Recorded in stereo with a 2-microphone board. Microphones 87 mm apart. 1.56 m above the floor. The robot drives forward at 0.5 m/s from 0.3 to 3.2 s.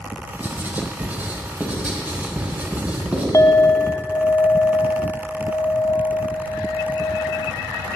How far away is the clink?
About 0.5 m.